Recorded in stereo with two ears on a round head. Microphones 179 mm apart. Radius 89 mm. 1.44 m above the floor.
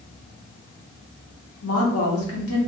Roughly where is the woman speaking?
Left.